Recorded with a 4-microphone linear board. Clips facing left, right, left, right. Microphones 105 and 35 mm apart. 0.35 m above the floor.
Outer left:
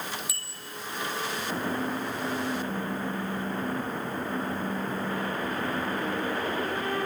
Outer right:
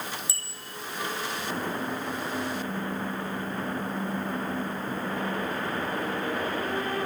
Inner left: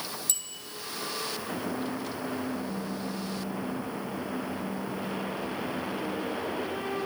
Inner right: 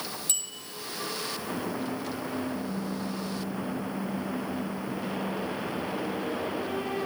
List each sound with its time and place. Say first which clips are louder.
0.3 s a bicycle bell: even, inner right 2 dB; 30° right (ahead or behind), 8 m